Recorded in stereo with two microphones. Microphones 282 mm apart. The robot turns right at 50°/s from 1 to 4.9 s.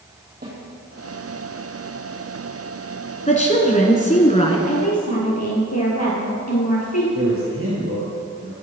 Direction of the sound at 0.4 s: 35° right (ahead or behind).